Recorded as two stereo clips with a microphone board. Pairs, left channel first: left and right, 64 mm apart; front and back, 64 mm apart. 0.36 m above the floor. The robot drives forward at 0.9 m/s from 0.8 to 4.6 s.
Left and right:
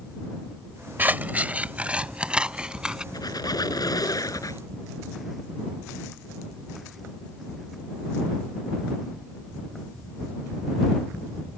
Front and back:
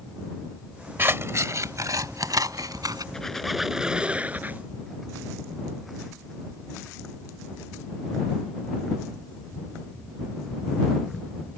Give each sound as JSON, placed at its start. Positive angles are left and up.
{"t": 1.0, "sound": "scissors", "azimuth_deg": -140}
{"t": 3.1, "sound": "a squeak", "azimuth_deg": 80}